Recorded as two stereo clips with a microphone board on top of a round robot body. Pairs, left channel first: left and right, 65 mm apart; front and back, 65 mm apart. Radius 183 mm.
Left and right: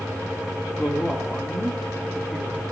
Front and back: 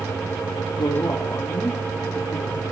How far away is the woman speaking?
About 2 m.